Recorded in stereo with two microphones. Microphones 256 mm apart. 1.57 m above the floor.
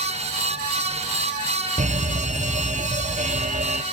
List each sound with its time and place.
1.8 s an alarm: 30° right (ahead or behind), 1.6 m